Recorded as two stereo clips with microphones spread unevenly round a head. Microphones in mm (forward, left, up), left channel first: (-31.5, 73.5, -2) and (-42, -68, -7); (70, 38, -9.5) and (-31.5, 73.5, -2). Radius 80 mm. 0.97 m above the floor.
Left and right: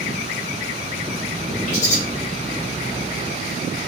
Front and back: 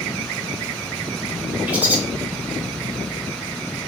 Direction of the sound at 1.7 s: 90° left.